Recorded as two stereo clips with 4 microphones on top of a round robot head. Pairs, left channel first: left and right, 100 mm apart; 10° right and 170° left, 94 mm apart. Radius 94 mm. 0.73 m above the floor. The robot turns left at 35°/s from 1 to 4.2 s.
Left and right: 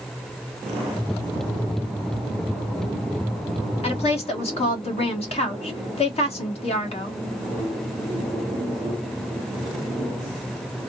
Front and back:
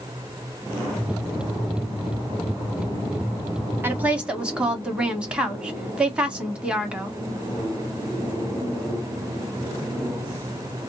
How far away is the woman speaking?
About 1.6 m.